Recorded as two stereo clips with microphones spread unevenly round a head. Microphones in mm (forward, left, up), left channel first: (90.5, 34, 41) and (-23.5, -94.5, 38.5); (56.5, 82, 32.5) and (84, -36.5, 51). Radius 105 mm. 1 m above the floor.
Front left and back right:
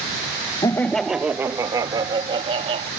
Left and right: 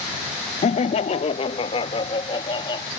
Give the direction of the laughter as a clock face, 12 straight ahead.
8 o'clock.